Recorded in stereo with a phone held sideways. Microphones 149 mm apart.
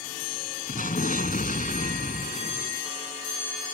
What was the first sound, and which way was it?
An explosion, 65° left (ahead or behind).